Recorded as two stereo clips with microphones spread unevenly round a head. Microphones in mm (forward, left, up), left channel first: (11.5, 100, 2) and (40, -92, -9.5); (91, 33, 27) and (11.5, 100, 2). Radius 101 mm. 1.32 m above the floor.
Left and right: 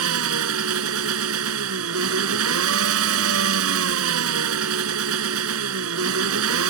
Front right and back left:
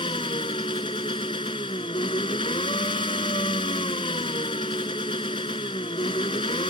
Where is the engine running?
100° right.